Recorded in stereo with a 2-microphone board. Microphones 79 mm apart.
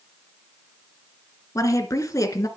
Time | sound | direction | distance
1.6 | a woman speaking | 45° left (ahead or behind) | 2.5 m